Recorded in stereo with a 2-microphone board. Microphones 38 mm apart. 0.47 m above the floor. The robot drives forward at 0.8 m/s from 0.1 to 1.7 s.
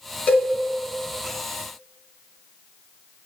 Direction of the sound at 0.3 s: 40° left (ahead or behind).